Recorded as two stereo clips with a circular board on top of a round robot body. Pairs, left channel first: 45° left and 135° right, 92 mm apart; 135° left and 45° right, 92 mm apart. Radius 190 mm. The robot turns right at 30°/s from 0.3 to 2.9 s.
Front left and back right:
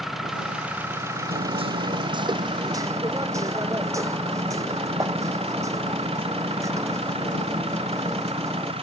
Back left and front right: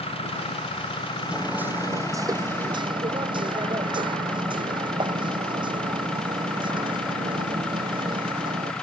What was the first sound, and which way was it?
An engine running, 140° left.